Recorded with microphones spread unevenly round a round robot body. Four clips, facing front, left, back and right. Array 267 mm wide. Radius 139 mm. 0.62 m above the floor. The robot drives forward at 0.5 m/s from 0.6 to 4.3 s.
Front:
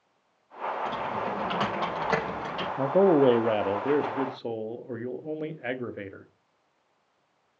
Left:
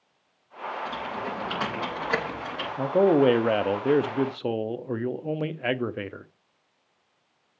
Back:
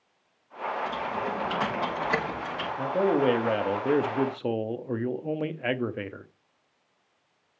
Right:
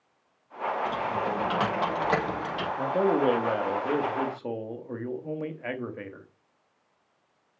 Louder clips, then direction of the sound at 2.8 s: Left 5 dB, front 4 dB; 40° left.